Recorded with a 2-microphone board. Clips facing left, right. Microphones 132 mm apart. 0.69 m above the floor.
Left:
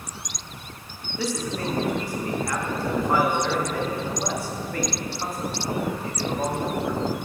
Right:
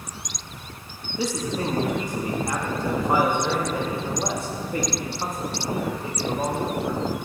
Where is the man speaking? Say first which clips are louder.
Right 2 dB; 20° right (ahead or behind), 0.6 m.